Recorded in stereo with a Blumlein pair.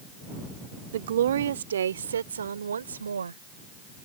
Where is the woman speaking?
60° right; by 3.4 s 75° right.